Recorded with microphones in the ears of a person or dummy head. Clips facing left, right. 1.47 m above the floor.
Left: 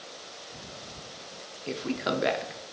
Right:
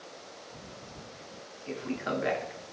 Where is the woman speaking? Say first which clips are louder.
Left 3 dB; 50° left (ahead or behind), 0.5 m.